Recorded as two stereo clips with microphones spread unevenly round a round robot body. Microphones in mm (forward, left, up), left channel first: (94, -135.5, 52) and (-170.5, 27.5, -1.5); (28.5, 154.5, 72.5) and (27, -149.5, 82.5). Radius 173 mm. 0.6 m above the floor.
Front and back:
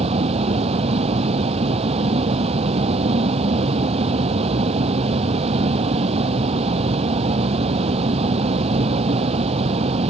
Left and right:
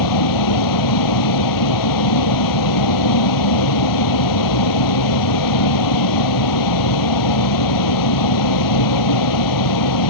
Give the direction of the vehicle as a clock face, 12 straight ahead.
10 o'clock.